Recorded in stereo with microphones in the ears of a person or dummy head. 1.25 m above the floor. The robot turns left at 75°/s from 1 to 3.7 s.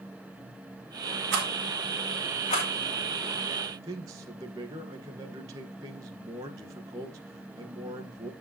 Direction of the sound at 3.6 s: 15° right (ahead or behind).